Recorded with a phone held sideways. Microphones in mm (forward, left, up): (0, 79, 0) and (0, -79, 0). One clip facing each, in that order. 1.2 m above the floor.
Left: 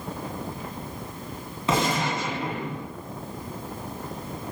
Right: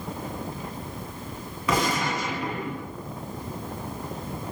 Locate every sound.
1.7 s a gunshot: 25° left (ahead or behind), 0.9 m